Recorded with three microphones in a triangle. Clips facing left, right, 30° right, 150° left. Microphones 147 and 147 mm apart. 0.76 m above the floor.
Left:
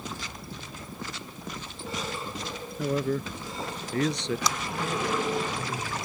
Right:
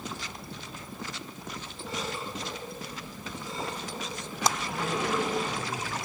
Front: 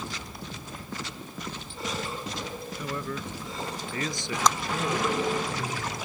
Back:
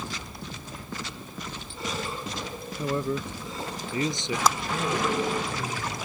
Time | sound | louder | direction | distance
2.8 | a man speaking | left 14 dB, back 7 dB | 90° left | ?
4.5 | a clap | right 6 dB, even | 125° right | ?